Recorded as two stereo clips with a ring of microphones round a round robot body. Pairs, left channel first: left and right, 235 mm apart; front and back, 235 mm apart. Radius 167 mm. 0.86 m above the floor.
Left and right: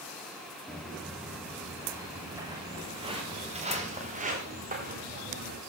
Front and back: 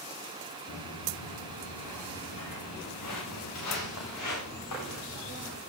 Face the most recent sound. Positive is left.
turn(degrees=-40)